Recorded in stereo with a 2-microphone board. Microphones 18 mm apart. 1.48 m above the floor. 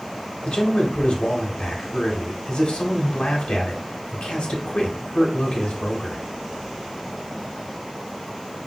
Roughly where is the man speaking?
Left.